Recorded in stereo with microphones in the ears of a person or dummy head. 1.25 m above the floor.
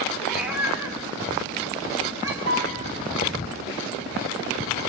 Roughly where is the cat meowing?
Centre.